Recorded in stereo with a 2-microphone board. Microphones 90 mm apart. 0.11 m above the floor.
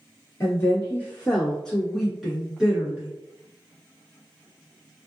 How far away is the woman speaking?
About 1.8 m.